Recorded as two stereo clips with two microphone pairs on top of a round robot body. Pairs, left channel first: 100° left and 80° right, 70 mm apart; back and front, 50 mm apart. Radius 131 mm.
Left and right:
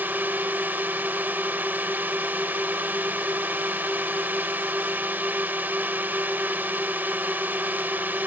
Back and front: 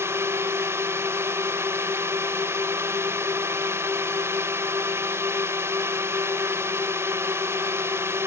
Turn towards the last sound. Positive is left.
turn(degrees=-15)